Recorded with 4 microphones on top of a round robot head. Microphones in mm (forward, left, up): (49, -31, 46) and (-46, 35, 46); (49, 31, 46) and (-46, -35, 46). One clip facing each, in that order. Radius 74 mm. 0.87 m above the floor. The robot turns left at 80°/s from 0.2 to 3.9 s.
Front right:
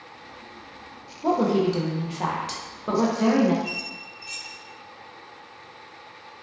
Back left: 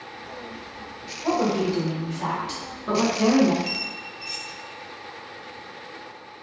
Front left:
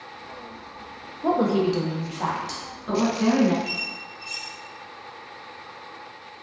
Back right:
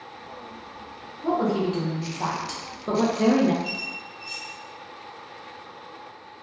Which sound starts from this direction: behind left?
A squeak, at 3.6 s.